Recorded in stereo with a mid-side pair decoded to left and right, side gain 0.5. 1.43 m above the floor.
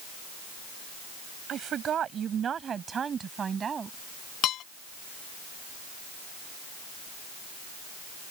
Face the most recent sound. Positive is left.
turn(degrees=70)